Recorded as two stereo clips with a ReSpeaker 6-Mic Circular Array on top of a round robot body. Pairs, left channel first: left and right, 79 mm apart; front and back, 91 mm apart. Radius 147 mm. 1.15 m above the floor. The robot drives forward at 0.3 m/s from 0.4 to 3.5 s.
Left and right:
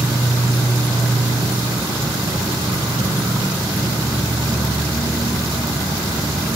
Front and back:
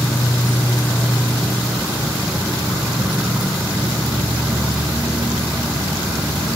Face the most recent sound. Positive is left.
turn(degrees=-105)